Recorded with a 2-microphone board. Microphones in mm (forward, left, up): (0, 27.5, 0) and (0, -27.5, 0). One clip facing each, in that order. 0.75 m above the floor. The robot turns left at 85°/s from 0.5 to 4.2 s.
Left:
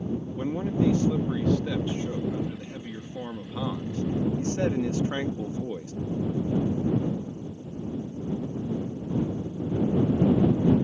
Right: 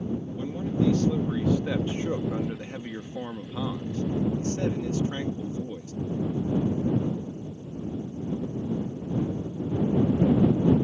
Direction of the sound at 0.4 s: 75° left.